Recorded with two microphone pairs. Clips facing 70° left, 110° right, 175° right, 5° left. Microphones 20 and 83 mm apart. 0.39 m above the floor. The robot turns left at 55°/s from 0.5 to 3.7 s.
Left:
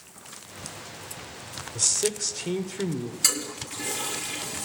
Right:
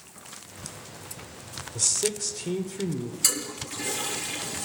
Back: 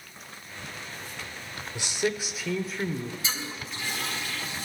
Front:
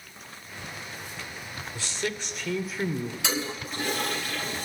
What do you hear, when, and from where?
1.8 s a man speaking: 140° left, 0.9 m; by 3.1 s 65° left, 0.9 m
3.2 s a toilet flushing: 10° right, 5.5 m; by 4.7 s 35° right, 5.5 m